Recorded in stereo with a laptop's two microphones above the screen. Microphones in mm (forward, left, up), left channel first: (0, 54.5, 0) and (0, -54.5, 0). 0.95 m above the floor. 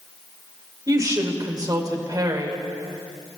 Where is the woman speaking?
35° right (ahead or behind), 2.5 m.